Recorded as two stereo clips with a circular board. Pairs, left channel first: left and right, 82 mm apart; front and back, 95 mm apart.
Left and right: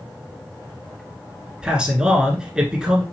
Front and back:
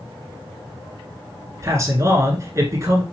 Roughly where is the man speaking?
Behind.